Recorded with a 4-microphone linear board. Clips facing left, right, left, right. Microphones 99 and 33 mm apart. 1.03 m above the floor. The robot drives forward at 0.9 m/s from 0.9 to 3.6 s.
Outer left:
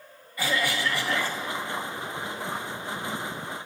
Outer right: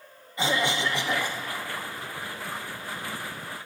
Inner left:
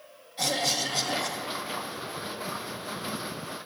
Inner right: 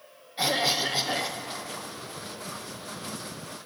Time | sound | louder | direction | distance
0.4 | a cough | outer right 1 dB, inner right 3 dB | 25° right (ahead or behind) | 0.6 m